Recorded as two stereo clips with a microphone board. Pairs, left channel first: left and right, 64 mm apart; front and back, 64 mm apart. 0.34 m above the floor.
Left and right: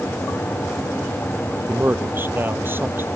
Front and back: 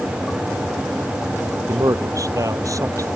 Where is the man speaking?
150° right; by 3.1 s 145° right.